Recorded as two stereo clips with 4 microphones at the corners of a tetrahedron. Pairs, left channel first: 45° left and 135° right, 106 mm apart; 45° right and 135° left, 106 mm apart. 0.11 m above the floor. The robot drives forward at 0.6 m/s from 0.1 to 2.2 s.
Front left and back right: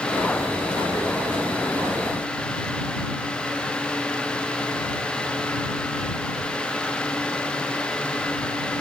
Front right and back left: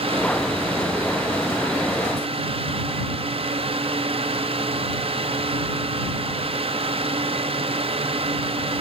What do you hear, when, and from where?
Only background noise.